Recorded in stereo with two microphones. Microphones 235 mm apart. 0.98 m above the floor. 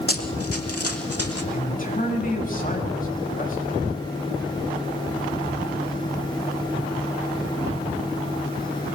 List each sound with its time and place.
0.1 s running footsteps: 70° left (ahead or behind), 3 m; by 1.4 s 75° left (ahead or behind), 3.5 m
1.5 s a man speaking: 35° left (ahead or behind), 6 m